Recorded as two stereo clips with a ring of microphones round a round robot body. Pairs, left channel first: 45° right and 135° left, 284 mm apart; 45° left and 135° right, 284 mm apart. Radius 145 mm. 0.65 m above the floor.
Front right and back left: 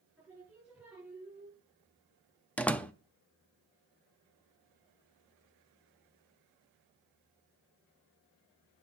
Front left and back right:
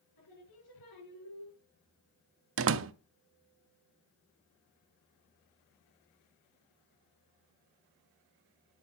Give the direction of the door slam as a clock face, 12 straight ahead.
4 o'clock.